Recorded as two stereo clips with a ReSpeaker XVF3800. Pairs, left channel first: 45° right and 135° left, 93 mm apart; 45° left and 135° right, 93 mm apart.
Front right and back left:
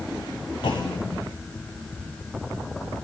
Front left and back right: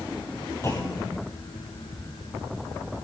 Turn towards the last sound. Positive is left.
turn(degrees=-15)